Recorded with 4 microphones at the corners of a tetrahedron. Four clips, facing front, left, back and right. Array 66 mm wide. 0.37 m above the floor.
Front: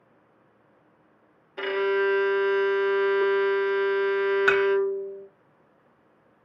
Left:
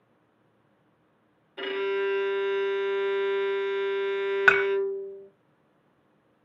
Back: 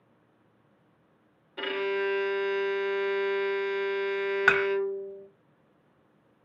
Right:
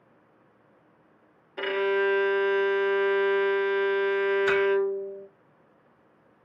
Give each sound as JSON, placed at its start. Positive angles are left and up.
{"t": 1.6, "sound": "a violin", "azimuth_deg": -60, "distance_m": 0.6}
{"t": 4.5, "sound": "dishes clattering", "azimuth_deg": 100, "distance_m": 1.6}